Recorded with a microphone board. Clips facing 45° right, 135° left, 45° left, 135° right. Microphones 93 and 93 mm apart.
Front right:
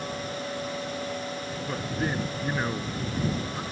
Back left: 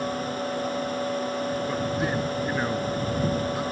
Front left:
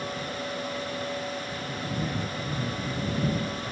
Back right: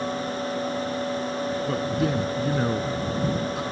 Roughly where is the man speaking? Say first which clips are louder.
Back left 4 dB, back right 7 dB; behind right.